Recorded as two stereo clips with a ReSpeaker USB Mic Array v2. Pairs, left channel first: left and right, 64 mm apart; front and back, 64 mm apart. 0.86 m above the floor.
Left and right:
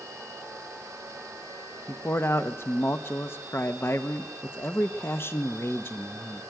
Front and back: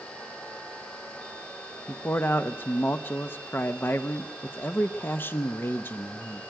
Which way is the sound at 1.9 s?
45° left.